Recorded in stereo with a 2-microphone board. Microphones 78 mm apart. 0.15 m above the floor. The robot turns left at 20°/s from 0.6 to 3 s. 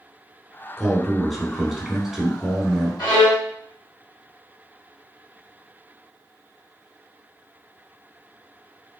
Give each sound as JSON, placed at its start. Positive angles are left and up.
{"t": 0.8, "sound": "a man speaking", "side_deg": 0, "distance_m": 1.2}
{"t": 3.0, "sound": "a violin", "side_deg": 60, "distance_m": 2.0}